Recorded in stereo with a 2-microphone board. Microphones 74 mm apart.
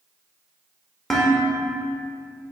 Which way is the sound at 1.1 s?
5° left (ahead or behind).